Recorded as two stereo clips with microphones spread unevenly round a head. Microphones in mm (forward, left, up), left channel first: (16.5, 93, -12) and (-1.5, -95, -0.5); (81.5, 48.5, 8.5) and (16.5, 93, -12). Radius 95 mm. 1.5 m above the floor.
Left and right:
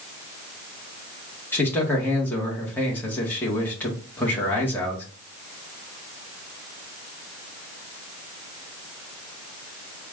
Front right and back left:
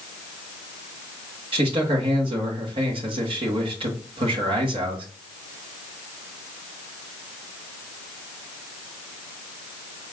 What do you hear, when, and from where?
1.5 s a man speaking: 165° left, 1.2 m